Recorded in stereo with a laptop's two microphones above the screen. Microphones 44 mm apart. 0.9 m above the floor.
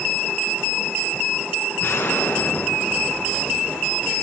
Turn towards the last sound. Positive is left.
turn(degrees=90)